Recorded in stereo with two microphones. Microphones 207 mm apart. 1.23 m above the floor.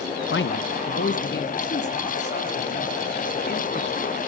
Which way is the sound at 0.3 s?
75° left (ahead or behind).